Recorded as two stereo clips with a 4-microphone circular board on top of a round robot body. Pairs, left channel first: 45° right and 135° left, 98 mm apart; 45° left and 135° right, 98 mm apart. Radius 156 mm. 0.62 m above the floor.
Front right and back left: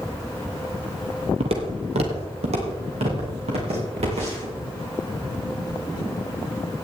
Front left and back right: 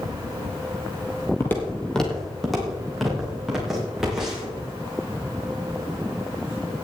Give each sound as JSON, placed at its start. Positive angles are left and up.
{"t": 1.4, "sound": "footsteps", "azimuth_deg": 110, "distance_m": 0.8}